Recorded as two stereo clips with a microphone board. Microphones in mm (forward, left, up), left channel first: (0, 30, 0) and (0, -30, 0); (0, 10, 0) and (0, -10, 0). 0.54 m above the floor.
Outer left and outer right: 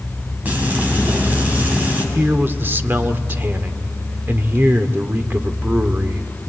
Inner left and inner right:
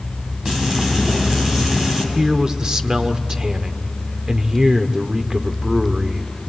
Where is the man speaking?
35° right (ahead or behind), 1.1 m.